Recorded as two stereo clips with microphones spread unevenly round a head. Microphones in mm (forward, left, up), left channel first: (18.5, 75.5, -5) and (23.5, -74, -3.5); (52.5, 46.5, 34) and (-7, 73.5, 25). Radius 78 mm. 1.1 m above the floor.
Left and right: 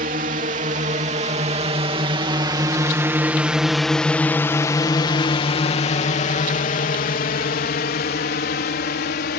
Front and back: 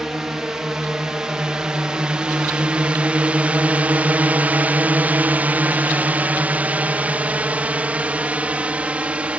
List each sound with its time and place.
0.0 s a drone: 120° right; by 9.4 s 90° left